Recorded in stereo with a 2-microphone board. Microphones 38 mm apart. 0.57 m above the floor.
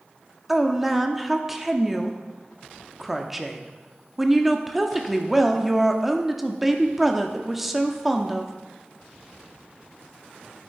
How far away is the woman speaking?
About 0.9 m.